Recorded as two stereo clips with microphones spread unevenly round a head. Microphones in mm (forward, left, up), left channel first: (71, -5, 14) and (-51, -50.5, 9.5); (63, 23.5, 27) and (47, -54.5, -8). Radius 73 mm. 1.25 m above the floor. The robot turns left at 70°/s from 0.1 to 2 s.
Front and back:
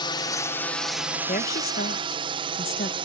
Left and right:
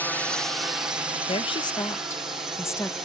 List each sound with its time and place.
0.0 s a drone: 10° right; by 3.1 s 145° right
1.3 s a woman speaking: 65° left; by 3.0 s 15° left